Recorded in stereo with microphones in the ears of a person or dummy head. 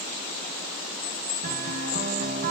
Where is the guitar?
40° right (ahead or behind), 1.4 m.